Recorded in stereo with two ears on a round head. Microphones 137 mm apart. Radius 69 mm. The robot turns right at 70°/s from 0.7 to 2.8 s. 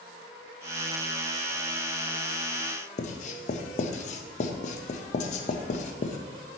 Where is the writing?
45° left (ahead or behind), 0.6 m.